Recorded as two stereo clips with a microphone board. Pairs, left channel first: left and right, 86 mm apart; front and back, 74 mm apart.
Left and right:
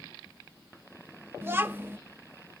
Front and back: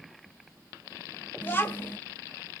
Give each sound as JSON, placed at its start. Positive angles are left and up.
{"t": 1.4, "sound": "a child speaking", "azimuth_deg": -45, "distance_m": 0.8}